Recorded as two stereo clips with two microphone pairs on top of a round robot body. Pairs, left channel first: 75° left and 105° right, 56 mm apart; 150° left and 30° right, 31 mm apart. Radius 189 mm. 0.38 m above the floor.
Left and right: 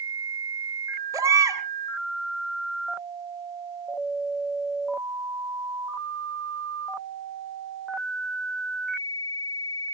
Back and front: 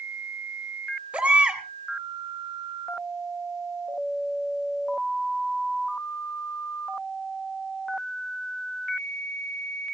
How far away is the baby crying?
About 3.5 m.